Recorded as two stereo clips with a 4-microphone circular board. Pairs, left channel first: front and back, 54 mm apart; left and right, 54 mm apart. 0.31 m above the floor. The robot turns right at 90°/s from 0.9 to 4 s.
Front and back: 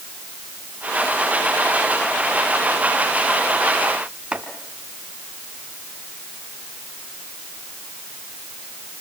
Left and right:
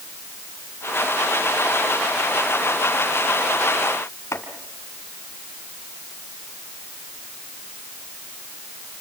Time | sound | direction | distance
4.3 | chopping | 115° left | 3 m